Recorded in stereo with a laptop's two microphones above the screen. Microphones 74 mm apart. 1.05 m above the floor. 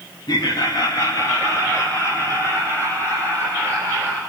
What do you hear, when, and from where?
0.3 s laughter: 70° left (ahead or behind), 1.3 m; by 4.2 s 30° left (ahead or behind), 3.5 m